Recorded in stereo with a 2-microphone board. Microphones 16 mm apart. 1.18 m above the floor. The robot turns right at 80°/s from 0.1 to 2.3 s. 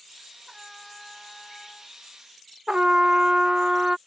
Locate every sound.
0.5 s a trumpet: 20° right; by 2.0 s 100° left
2.7 s a trumpet: 55° right (ahead or behind)